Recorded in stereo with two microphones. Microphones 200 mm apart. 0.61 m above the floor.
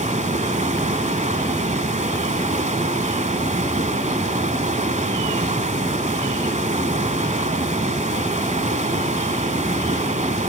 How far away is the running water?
About 1.0 m.